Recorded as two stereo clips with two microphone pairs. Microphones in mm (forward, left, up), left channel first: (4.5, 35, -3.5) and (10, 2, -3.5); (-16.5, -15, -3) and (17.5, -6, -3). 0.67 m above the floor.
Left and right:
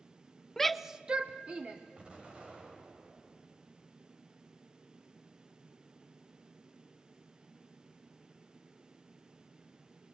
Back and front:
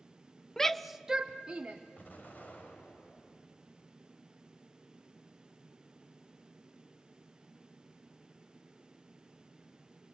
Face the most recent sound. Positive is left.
turn(degrees=-135)